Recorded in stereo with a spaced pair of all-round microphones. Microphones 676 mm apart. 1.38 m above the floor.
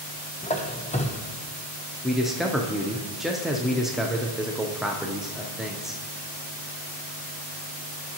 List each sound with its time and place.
0.4 s a squeak: 10° left (ahead or behind), 0.6 m
2.0 s a man speaking: centre (ahead or behind), 0.5 m